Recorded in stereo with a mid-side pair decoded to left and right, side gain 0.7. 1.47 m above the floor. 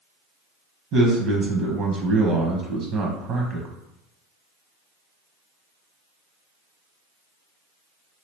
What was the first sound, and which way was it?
A man speaking, 50° right.